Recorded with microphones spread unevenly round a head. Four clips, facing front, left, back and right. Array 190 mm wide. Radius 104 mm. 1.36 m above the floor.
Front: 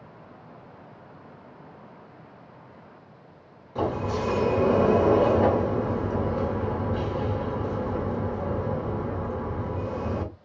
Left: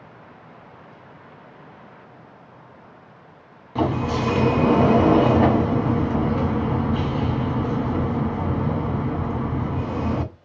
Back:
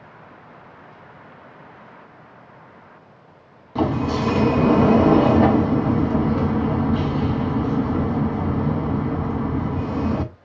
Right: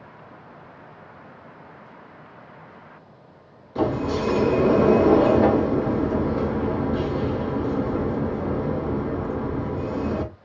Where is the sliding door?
145° left, 1.3 m.